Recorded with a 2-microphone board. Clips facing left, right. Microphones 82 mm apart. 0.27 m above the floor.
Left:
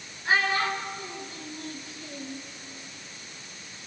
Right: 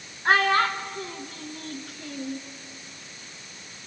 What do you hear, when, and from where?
0.2 s a child speaking: 60° right (ahead or behind), 2.5 m